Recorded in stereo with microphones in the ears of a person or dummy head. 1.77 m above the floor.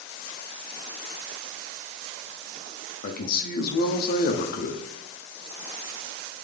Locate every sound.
3.0 s a man speaking: 55° left (ahead or behind), 0.6 m